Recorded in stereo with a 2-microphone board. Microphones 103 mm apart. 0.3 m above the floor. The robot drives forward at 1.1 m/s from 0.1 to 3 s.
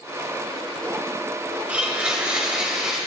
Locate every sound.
1.7 s a blender: 15° right (ahead or behind), 1.8 m; by 3.0 s 5° right (ahead or behind), 3 m